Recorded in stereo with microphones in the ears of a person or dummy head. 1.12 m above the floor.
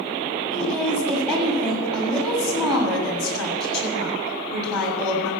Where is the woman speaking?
10° left (ahead or behind), 7 m.